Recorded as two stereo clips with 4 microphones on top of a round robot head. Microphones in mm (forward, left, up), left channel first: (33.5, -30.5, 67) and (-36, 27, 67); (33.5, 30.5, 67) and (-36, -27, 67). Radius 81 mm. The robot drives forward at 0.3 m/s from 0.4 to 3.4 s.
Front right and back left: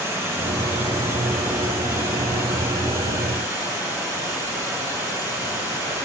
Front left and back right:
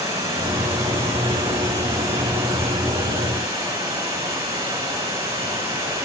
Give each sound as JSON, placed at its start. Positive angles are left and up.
{"t": 0.0, "sound": "running water", "azimuth_deg": -160, "distance_m": 6.5}